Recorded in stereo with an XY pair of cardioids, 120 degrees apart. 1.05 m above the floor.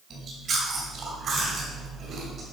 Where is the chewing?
45° right, 3 m.